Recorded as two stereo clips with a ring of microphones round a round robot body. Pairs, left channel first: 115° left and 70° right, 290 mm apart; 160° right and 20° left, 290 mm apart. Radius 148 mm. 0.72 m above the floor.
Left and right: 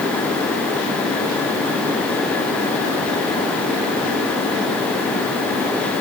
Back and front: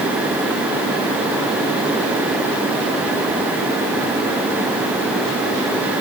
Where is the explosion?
No explosion in this recording.